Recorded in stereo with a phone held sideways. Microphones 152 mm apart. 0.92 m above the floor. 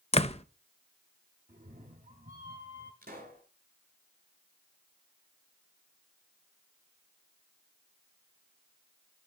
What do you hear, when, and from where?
0.1 s a door slam: 45° left (ahead or behind), 0.6 m
1.5 s a cat meowing: 65° right (ahead or behind), 3 m
3.0 s a pop: 75° right (ahead or behind), 4 m